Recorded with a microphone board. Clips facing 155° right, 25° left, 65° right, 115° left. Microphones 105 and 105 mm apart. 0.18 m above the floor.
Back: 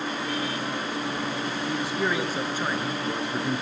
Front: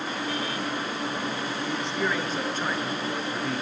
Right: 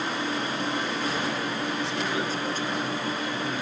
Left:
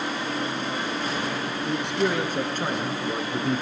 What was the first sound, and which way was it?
A man speaking, 125° left.